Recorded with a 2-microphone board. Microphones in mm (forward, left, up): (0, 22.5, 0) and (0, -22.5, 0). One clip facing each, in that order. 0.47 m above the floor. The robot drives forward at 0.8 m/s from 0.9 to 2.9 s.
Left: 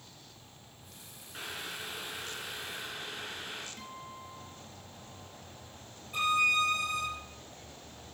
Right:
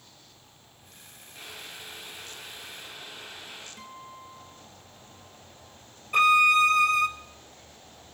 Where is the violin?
75° right (ahead or behind), 0.6 m.